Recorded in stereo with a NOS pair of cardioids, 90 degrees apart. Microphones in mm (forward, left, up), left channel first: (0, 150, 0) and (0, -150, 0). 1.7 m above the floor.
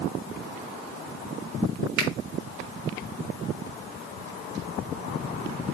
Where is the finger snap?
70° right, 3.5 m.